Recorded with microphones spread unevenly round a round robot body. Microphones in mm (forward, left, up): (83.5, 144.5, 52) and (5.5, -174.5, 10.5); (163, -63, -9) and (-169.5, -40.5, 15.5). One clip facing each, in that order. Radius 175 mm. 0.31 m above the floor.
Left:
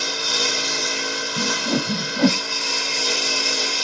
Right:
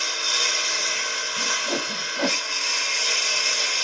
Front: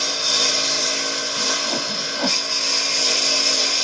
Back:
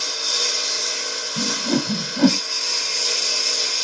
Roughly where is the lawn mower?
Ahead left.